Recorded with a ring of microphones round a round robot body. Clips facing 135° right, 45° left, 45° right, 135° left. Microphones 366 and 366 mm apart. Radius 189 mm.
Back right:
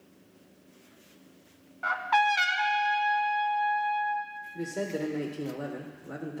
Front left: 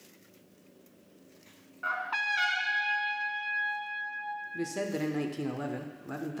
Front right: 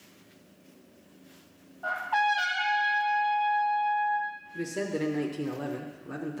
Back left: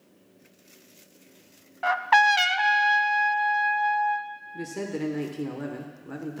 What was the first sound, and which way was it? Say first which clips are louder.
A trumpet: back right 11 dB, back left 6 dB; 150° left.